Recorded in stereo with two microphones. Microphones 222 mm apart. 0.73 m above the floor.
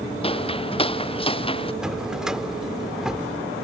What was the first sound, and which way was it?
Footsteps, 25° left (ahead or behind).